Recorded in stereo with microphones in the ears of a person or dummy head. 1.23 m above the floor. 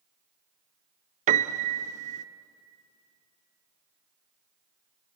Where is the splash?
No splash in this recording.